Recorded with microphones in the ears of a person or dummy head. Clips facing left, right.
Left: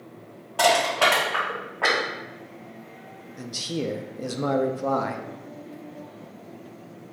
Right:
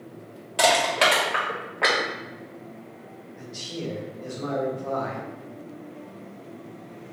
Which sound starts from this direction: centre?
Crushing, at 0.6 s.